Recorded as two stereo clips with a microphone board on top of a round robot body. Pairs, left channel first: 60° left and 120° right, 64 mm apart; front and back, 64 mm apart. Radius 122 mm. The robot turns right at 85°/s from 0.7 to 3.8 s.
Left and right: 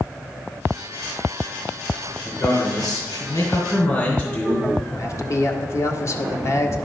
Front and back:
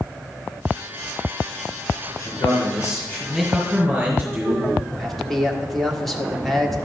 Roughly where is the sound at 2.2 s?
Ahead.